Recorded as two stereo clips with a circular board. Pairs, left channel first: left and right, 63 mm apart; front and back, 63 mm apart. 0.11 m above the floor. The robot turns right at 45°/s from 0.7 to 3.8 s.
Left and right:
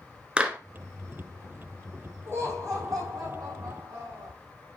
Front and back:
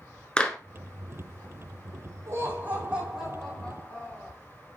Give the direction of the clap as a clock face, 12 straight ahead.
2 o'clock.